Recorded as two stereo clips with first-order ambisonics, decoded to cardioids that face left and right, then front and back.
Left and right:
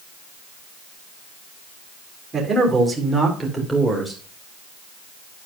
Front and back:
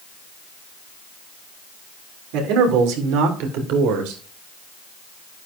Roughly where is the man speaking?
Behind.